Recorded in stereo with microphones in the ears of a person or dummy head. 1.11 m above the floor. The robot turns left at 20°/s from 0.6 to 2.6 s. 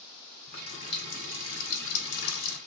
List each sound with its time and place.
0.5 s a running tap: 130° left, 1.2 m; by 2.6 s 90° left, 1.2 m